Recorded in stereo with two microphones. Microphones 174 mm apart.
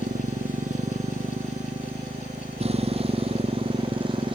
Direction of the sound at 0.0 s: 50° right (ahead or behind).